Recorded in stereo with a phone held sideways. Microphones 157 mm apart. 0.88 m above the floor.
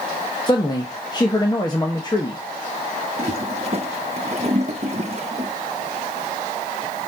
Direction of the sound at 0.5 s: 25° left (ahead or behind).